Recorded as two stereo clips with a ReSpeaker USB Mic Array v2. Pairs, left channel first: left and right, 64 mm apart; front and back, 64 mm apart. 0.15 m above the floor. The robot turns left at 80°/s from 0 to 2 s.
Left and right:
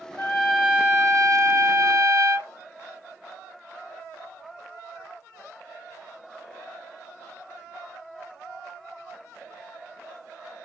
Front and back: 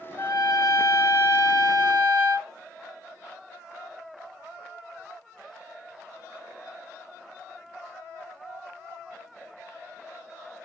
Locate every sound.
0.2 s a trumpet: 35° left, 3 m; by 2.5 s 110° right, 3 m